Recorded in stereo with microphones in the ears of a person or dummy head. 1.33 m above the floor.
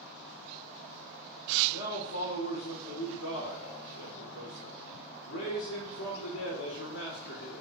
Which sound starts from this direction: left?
A man speaking, at 1.7 s.